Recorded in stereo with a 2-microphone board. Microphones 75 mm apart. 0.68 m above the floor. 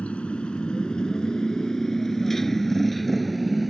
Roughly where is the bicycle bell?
No bicycle bell in this recording.